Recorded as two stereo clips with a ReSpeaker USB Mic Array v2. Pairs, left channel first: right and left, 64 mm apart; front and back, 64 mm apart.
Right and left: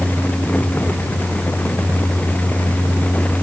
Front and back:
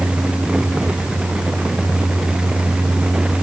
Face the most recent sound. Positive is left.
No sound to turn to.